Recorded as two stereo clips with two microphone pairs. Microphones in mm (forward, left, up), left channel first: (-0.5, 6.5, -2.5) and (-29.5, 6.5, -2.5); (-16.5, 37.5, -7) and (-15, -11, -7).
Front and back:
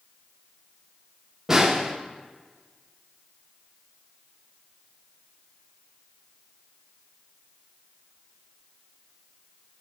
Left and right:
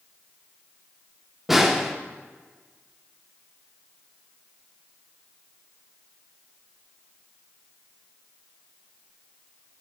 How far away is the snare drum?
About 0.7 m.